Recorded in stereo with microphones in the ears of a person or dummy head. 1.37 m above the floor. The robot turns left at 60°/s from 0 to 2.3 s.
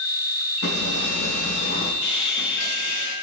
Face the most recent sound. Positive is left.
turn(degrees=65)  # may be behind; listen again after turning